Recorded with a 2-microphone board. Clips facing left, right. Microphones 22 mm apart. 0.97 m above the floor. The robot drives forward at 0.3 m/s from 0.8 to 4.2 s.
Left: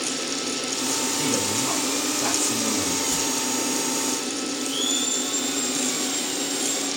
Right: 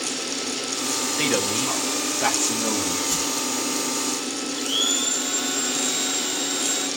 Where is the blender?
40° right (ahead or behind), 7 m.